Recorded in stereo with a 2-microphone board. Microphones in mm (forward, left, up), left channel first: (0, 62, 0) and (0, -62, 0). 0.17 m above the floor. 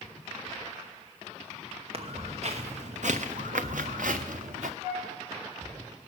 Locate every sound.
1.9 s footsteps: 50° right (ahead or behind), 1.7 m; by 4.7 s 70° right (ahead or behind), 1.2 m
4.8 s a flute: 30° right (ahead or behind), 7 m